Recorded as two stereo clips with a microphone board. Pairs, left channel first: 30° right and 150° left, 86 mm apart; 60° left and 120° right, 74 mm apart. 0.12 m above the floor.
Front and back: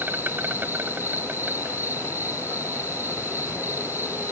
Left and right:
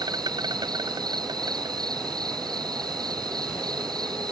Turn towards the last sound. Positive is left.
turn(degrees=-145)